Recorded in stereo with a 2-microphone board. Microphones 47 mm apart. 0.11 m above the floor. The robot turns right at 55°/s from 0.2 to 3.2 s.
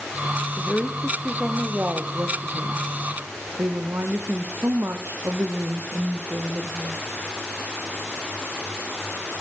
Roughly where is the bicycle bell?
I don't hear a bicycle bell.